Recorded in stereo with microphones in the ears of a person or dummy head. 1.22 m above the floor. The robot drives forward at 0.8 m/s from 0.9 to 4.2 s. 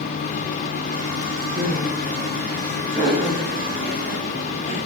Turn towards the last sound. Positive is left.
turn(degrees=-5)  # may be behind; listen again after turning